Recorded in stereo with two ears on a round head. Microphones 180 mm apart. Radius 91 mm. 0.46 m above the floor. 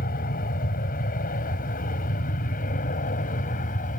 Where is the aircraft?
45° left (ahead or behind).